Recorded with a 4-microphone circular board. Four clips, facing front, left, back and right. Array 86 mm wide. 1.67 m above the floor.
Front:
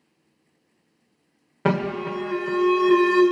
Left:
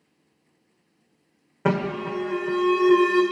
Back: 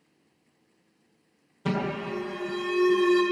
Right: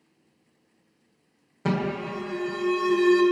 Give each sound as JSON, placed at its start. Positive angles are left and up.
{"t": 1.6, "sound": "an alarm", "azimuth_deg": 30, "distance_m": 1.3}